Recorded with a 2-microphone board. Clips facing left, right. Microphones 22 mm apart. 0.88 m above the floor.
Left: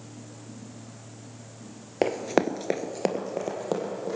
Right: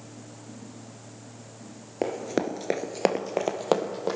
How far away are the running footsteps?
About 1.1 m.